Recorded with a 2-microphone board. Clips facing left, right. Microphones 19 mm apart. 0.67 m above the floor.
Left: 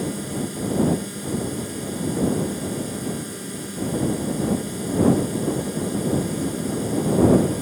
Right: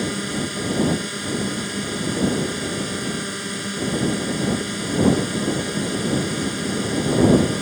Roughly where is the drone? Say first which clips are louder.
Right 3 dB; right.